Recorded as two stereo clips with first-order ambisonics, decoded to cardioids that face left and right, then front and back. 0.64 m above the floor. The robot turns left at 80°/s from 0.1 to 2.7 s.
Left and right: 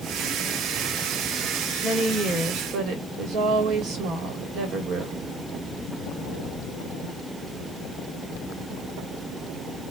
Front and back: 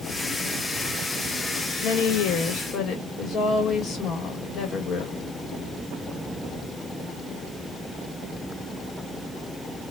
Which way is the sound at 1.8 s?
20° left.